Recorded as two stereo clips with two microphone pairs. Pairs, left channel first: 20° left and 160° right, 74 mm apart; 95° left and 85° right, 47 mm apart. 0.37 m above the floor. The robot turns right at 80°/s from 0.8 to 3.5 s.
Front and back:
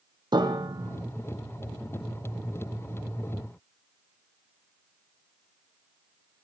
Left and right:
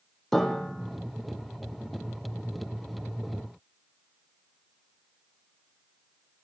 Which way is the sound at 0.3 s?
Straight behind.